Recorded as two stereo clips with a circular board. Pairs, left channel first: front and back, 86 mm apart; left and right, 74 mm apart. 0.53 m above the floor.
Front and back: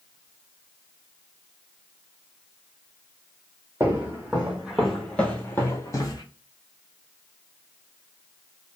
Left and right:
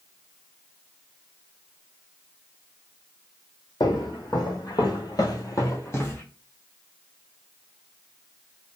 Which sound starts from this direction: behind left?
Footsteps, at 3.8 s.